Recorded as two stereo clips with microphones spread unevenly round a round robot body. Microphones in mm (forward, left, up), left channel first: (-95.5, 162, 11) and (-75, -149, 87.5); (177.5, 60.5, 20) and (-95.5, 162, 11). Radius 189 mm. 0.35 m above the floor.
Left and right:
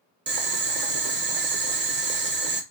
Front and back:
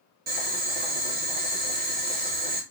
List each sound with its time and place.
0.3 s boiling: 150° right, 0.6 m